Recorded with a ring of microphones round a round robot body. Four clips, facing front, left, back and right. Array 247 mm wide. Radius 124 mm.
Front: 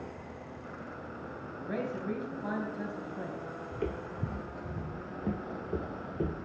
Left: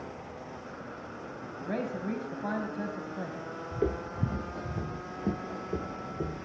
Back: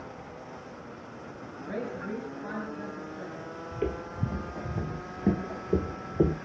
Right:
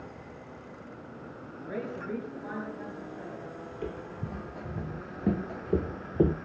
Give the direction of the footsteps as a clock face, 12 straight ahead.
8 o'clock.